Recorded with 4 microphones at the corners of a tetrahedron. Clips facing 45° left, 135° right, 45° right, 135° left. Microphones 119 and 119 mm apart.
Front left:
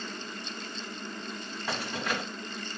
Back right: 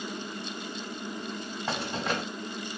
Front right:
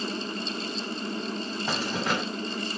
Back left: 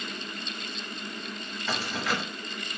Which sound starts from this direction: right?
Keys jangling, at 1.7 s.